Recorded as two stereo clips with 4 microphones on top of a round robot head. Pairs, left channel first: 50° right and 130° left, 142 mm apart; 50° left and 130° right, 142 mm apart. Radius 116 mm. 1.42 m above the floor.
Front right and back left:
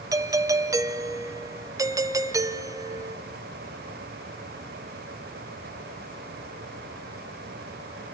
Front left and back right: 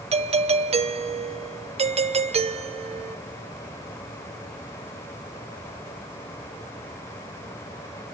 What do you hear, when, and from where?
0.1 s a doorbell: 165° right, 0.6 m